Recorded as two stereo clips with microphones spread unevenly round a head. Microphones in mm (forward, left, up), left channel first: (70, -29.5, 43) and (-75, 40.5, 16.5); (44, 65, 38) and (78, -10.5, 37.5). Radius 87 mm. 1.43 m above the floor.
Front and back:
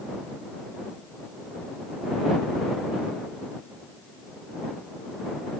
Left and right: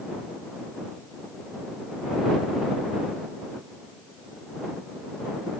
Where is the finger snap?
No finger snap in this recording.